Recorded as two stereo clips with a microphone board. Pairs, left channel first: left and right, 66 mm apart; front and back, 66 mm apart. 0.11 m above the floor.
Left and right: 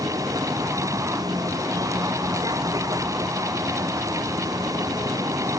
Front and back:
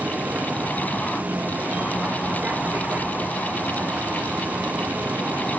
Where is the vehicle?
115° right.